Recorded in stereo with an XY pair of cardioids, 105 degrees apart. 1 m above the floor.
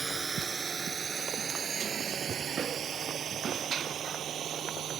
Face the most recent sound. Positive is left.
turn(degrees=-60)